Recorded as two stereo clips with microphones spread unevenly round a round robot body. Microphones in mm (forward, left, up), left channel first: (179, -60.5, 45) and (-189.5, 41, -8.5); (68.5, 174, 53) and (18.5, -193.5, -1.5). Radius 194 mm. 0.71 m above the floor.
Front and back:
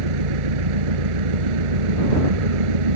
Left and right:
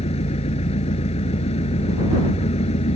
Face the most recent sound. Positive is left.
turn(degrees=160)